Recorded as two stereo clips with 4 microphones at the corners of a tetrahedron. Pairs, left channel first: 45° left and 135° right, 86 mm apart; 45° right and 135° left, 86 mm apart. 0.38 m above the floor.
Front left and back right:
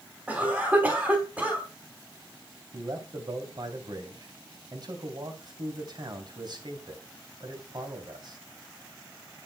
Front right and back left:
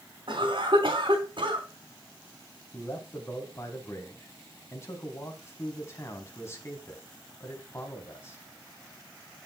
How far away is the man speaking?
About 3 m.